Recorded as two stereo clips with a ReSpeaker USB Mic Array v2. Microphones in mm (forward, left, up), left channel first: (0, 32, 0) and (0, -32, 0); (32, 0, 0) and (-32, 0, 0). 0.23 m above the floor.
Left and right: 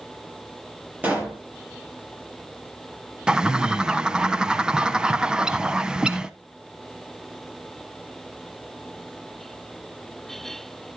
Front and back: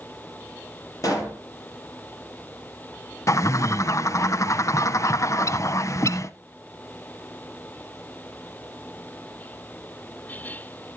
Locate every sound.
1.0 s a pop: 25° right, 6 m
3.3 s a bird: 15° right, 0.7 m